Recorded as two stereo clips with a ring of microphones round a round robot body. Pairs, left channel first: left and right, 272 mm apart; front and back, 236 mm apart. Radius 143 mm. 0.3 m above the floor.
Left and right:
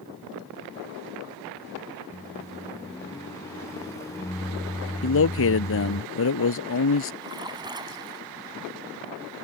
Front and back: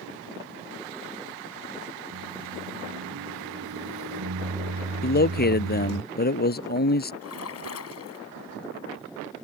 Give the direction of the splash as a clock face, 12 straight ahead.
1 o'clock.